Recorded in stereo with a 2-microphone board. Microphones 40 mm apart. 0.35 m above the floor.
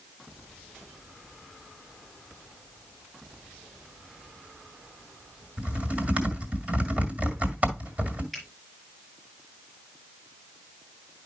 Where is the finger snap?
5° right (ahead or behind), 5 m.